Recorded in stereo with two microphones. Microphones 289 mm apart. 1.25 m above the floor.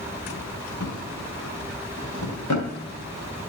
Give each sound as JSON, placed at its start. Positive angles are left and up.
{"t": 0.8, "sound": "a drawer", "side_deg": 75, "distance_m": 3.0}